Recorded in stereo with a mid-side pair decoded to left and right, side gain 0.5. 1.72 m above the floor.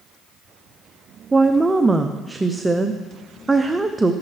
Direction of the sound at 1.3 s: 20° right.